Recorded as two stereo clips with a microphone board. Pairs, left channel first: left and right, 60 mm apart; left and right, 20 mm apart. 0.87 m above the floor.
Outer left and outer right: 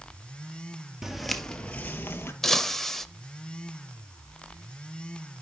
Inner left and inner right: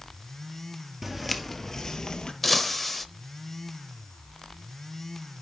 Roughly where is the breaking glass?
Centre.